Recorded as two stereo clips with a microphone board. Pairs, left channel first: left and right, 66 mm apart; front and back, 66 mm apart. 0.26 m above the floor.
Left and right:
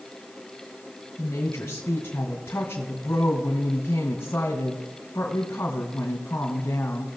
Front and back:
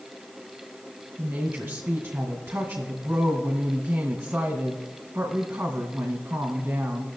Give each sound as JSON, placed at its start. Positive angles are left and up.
{"t": 1.2, "sound": "a woman speaking", "azimuth_deg": 120, "distance_m": 2.0}